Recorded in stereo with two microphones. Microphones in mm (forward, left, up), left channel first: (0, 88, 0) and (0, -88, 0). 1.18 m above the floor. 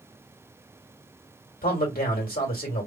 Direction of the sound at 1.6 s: 60° left (ahead or behind).